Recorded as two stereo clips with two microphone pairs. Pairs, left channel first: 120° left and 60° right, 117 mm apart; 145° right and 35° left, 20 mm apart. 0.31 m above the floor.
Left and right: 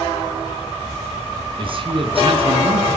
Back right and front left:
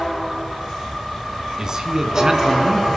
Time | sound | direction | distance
1.6 | a man speaking | 25° right | 3 m